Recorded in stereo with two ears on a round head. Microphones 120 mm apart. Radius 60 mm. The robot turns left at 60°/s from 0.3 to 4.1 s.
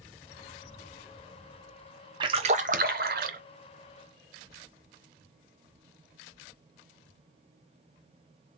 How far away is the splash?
About 0.7 m.